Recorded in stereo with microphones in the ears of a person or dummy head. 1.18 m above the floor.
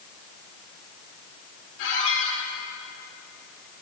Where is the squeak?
70° left (ahead or behind), 3 m.